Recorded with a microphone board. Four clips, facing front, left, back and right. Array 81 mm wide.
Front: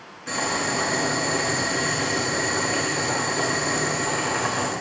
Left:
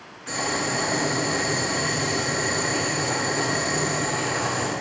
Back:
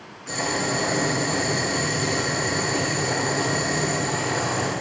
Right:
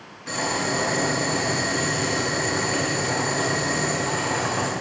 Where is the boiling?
20° right, 5 m.